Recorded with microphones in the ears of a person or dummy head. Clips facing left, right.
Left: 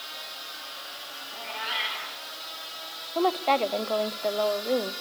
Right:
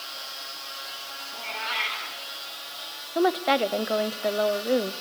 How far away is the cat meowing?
About 5 m.